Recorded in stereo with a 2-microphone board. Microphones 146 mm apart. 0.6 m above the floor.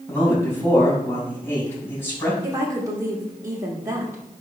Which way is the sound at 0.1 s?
15° left (ahead or behind).